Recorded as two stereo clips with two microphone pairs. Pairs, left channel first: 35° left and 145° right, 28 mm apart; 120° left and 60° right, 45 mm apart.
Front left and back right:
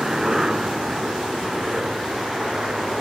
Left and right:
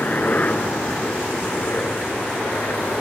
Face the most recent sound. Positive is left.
turn(degrees=155)